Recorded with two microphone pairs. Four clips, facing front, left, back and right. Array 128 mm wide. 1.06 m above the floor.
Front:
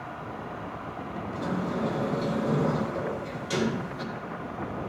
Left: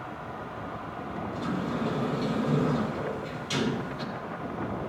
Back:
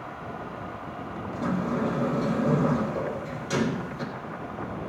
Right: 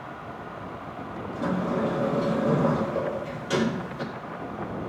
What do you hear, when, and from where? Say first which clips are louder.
1.3 s a sliding door: right 5 dB, back 3 dB; 95° right, 3.5 m